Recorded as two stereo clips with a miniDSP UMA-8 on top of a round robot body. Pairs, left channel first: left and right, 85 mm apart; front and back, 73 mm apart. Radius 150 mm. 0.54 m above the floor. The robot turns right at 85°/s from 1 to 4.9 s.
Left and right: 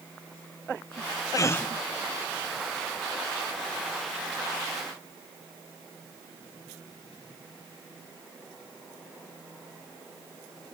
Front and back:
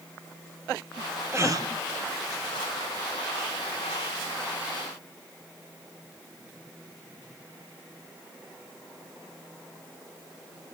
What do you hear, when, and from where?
1.3 s a gasp: 130° left, 0.7 m; by 1.7 s 160° left, 0.7 m